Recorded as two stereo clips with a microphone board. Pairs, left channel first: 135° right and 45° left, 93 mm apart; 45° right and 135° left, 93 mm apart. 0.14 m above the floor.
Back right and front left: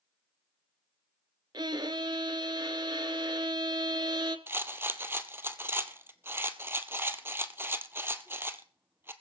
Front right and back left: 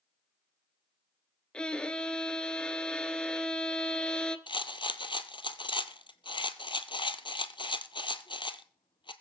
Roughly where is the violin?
Ahead left.